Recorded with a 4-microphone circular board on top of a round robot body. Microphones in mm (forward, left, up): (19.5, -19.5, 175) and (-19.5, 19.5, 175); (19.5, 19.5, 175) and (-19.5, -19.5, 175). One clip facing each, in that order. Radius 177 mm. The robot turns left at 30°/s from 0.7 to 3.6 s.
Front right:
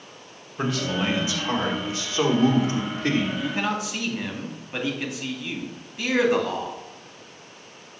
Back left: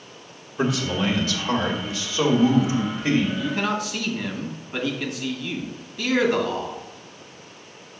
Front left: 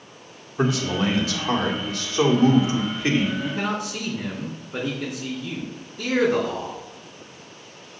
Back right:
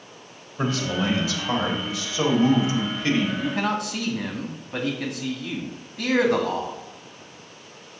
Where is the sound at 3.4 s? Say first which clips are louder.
Back left 1 dB, back right 1 dB; 110° right, 2 m; by 6.8 s 120° right, 2 m.